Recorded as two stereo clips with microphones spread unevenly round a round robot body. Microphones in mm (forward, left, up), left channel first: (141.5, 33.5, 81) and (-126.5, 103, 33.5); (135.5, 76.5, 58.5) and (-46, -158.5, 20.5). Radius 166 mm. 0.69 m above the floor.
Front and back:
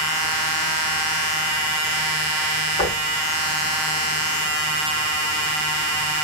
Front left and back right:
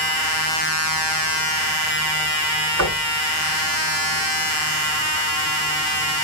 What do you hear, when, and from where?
2.8 s knocking: 90° right, 3.5 m